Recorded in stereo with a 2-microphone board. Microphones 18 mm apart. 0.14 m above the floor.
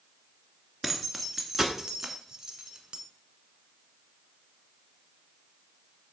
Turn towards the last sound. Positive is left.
turn(degrees=-35)  # may be behind; listen again after turning